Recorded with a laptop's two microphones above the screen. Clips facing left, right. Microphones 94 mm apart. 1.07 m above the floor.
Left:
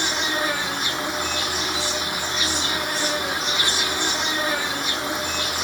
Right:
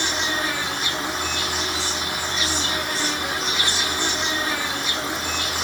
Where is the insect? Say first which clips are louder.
Left 1 dB; 25° left (ahead or behind), 1.7 m.